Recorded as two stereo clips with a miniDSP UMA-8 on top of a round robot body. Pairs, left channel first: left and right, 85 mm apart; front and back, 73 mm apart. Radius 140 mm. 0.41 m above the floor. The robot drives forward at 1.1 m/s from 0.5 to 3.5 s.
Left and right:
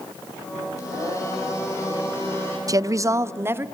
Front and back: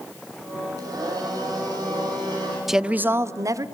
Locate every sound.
0.8 s a blender: 135° left, 6.5 m; by 2.6 s 145° left, 8 m
2.7 s a woman speaking: 95° right, 1.0 m; by 3.6 s 150° right, 1.4 m